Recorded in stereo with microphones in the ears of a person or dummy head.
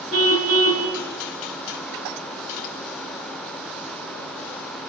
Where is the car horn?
70° right (ahead or behind), 5 m.